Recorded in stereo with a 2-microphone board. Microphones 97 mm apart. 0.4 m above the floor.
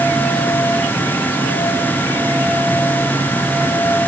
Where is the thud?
No thud in this recording.